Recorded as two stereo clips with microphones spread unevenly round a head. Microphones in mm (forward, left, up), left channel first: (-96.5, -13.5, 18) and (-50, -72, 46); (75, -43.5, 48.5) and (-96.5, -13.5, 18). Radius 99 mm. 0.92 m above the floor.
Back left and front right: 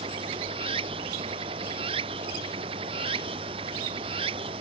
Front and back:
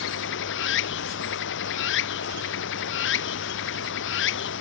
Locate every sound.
0.0 s running water: 25° right